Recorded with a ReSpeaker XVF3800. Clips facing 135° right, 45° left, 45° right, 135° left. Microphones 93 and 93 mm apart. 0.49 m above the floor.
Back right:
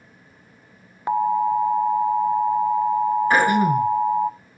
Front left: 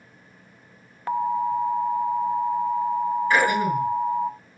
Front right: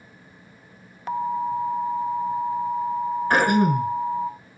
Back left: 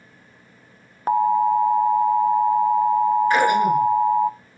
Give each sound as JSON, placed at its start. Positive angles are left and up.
{"t": 1.1, "sound": "an alarm", "azimuth_deg": 160, "distance_m": 0.5}
{"t": 3.3, "sound": "throat clearing", "azimuth_deg": -90, "distance_m": 6.0}